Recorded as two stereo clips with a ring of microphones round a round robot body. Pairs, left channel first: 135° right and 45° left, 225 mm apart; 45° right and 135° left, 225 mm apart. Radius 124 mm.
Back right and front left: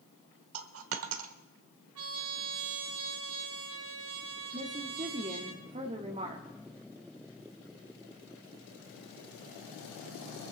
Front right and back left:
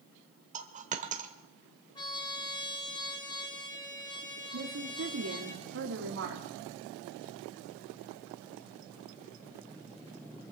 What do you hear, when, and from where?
0.5 s a dropped coin: 75° left, 1.0 m
1.9 s a trumpet: 25° left, 2 m
4.5 s a woman speaking: 110° left, 1.4 m